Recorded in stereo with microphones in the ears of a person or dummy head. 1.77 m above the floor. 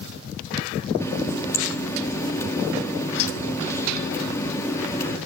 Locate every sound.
1.0 s a running tap: 15° left (ahead or behind), 2.5 m